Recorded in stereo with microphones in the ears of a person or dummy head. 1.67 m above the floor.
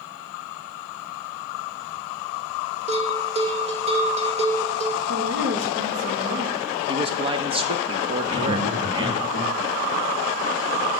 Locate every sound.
2.9 s a bell: 25° right (ahead or behind), 1.0 m
5.1 s a woman speaking: 65° right (ahead or behind), 2.5 m
6.9 s a man speaking: 20° right (ahead or behind), 0.8 m
8.2 s laughter: 30° right (ahead or behind), 3.5 m